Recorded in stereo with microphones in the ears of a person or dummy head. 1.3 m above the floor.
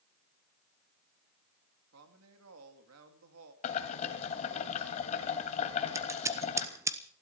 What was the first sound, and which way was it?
A woman speaking, 80° right.